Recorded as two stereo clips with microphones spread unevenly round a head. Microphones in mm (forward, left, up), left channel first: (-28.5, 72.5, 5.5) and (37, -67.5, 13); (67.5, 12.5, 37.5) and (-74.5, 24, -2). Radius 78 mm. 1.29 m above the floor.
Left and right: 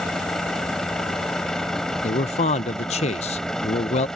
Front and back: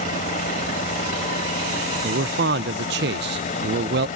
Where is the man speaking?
170° left.